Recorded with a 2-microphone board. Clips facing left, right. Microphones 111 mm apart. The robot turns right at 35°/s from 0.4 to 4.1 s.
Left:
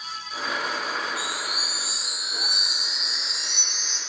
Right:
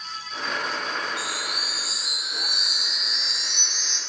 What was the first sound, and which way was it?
A chime, 35° left.